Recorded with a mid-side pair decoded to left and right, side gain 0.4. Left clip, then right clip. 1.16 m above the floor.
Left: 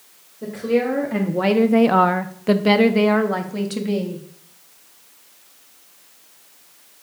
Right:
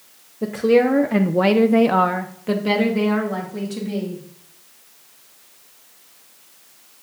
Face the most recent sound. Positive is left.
turn(degrees=70)